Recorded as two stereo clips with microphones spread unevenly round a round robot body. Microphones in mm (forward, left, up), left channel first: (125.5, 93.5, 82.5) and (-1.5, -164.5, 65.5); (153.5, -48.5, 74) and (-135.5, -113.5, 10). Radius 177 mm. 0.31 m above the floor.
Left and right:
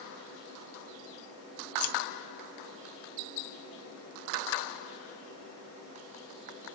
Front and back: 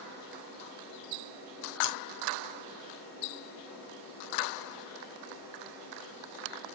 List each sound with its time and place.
1.8 s scissors: 65° left, 1.6 m